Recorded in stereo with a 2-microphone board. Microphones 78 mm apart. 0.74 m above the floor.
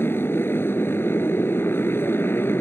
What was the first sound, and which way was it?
A motorcycle, 30° left (ahead or behind).